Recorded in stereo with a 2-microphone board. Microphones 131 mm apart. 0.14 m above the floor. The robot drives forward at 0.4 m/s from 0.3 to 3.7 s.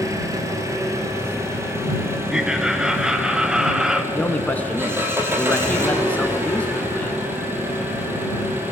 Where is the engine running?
25° right (ahead or behind), 2.5 m; by 8.7 s 15° right (ahead or behind), 4 m.